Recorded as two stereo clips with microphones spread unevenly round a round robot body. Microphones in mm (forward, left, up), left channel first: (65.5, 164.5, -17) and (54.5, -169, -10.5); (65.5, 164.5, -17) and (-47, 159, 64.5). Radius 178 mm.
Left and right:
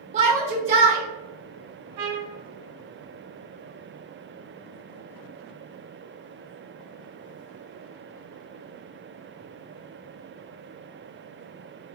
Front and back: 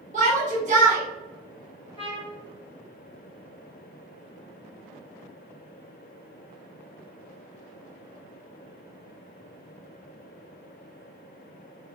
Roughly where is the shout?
Behind right.